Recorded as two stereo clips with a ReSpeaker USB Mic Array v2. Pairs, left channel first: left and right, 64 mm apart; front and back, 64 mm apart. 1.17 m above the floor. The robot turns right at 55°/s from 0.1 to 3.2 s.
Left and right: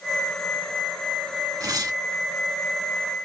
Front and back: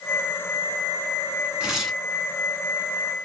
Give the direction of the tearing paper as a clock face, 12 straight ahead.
4 o'clock.